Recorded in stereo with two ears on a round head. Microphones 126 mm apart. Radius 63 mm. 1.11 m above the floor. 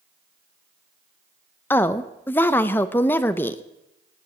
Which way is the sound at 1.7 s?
15° left (ahead or behind).